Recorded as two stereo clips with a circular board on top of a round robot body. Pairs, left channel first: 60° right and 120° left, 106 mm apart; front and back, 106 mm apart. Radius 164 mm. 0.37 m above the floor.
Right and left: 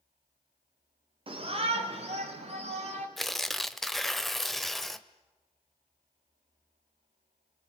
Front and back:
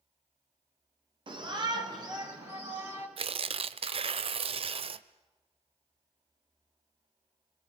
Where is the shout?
145° left, 1.9 m; by 3.1 s 120° left, 4.5 m.